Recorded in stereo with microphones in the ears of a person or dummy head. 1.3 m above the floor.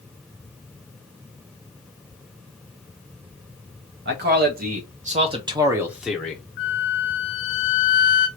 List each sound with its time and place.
4.0 s a man speaking: 55° right (ahead or behind), 1.6 m; by 6.4 s 10° left (ahead or behind), 1.1 m
6.6 s a flute: 40° left (ahead or behind), 0.8 m